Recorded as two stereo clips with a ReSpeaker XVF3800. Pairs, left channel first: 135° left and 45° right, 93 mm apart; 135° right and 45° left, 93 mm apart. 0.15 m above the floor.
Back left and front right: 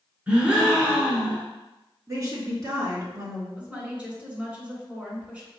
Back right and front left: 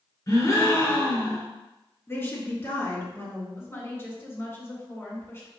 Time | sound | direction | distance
0.3 | a gasp | 110° right | 1.6 m
2.1 | a woman speaking | 80° right | 2 m
3.6 | a woman speaking | 105° right | 1.7 m